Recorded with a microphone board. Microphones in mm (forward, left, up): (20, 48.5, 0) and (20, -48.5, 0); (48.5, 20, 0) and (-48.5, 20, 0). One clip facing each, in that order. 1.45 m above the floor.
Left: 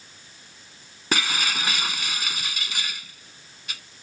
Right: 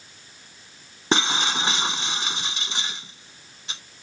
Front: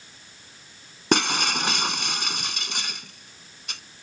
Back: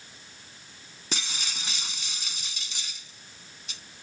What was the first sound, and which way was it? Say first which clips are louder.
Breaking glass: right 4 dB, front 15 dB; 25° right.